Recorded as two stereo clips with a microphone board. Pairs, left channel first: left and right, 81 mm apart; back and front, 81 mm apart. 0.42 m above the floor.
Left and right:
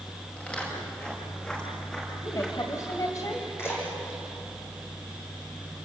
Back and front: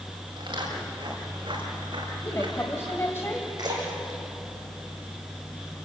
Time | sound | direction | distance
0.4 | footsteps | 15° left | 9.5 m
2.2 | a woman speaking | 125° left | 2 m
3.6 | a splash | 30° left | 8.5 m